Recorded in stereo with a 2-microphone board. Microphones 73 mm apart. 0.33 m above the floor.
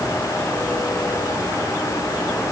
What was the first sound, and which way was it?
Only background noise.